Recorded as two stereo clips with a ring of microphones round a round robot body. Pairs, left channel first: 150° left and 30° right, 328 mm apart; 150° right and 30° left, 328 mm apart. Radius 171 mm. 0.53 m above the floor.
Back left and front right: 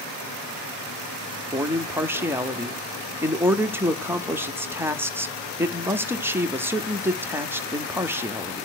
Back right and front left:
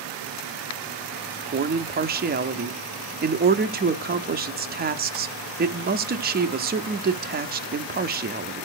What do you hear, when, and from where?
1.5 s a man speaking: 45° left, 0.7 m